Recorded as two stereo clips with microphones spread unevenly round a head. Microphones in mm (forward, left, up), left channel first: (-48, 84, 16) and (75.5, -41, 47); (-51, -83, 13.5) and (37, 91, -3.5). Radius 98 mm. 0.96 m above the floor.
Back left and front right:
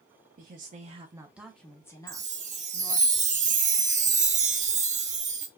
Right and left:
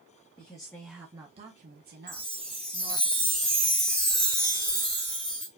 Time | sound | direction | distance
0.4 | a woman speaking | 55° right | 0.9 m
2.1 | a chime | 25° right | 0.9 m